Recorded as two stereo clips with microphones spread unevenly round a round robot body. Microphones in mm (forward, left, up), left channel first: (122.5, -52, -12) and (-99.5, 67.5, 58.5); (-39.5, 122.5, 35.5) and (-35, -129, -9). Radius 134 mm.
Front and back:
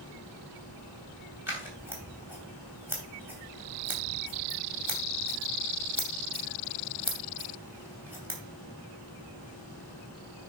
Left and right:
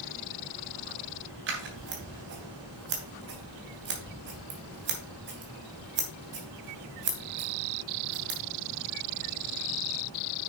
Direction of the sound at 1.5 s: 120° right.